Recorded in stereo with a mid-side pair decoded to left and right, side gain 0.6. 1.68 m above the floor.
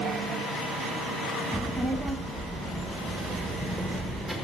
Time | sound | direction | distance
1.5 | a child speaking | straight ahead | 2.5 m